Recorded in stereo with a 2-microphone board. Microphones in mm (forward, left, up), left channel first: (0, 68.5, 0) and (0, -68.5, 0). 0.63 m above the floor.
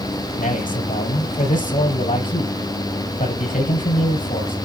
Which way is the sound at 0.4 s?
70° left (ahead or behind).